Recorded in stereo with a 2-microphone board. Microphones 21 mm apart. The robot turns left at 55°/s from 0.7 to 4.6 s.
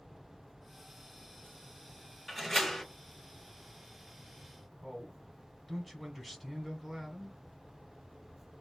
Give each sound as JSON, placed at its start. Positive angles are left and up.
{"t": 2.3, "sound": "a door slam", "azimuth_deg": 175, "distance_m": 1.3}
{"t": 4.8, "sound": "a man speaking", "side_deg": 0, "distance_m": 1.2}